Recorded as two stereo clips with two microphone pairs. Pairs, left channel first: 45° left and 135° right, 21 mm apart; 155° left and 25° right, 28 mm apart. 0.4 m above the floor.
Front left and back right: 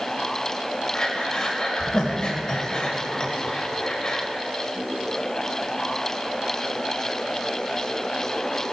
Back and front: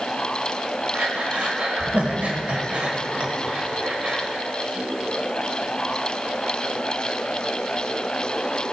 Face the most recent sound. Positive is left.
turn(degrees=0)